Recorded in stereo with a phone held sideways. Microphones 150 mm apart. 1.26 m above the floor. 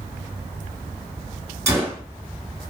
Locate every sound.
1.7 s a gunshot: 20° right (ahead or behind), 1.1 m